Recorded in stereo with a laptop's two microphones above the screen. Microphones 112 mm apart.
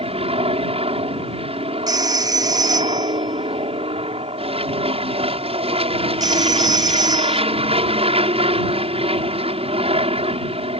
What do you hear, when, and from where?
0.0 s an aircraft: 60° right (ahead or behind)
1.9 s a phone ringing: 30° right (ahead or behind)